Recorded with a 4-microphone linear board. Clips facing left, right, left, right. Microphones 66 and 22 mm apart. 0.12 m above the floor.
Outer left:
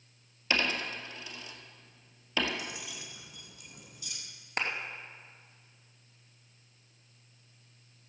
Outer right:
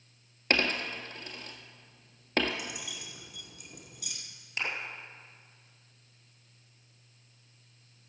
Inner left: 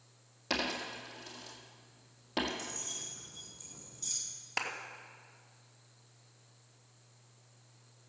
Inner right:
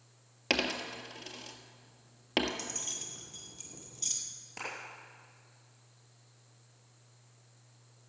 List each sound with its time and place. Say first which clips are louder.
0.5 s a dropped coin: outer right 2 dB, inner right 3 dB; 50° right (ahead or behind), 1.5 m
2.6 s keys jangling: outer right 1 dB, inner right 2 dB; 65° right (ahead or behind), 2 m
4.6 s a clap: outer left 2 dB, inner left 5 dB; 50° left (ahead or behind), 2.5 m